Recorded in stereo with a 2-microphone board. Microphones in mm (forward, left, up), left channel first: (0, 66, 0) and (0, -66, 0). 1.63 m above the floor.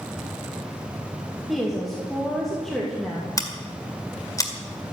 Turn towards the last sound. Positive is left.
turn(degrees=25)  # may be behind; listen again after turning